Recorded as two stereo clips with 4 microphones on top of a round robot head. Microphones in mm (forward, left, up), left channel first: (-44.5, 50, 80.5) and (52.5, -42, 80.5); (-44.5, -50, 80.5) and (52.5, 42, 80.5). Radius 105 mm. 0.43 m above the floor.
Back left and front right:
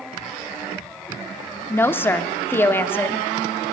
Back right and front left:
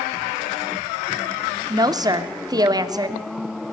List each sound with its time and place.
1.7 s a woman speaking: 75° left, 0.8 m